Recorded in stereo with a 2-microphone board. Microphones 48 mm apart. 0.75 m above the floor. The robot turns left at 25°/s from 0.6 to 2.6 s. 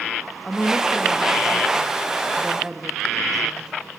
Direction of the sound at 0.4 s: 30° left.